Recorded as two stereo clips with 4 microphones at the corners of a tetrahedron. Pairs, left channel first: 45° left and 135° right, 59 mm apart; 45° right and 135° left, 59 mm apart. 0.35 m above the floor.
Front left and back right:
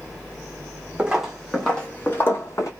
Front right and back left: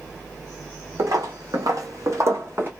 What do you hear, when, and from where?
1.0 s footsteps: 150° left, 0.9 m; by 2.7 s 80° left, 1.0 m